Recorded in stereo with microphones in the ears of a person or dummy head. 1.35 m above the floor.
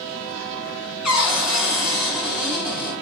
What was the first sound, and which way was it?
A cupboard door, 5° left (ahead or behind).